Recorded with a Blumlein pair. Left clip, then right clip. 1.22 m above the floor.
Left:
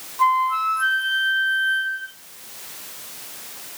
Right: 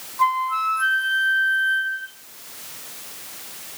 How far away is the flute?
About 1.4 m.